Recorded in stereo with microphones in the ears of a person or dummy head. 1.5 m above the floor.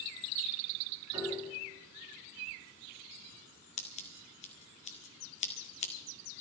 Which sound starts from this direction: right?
A piano, at 1.1 s.